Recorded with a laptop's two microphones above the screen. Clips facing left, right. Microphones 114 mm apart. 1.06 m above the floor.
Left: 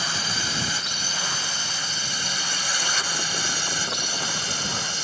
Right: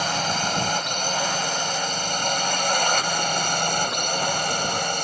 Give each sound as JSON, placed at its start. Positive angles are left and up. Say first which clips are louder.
{"t": 0.0, "sound": "a drone", "louder": "right 6 dB", "side_deg": -50}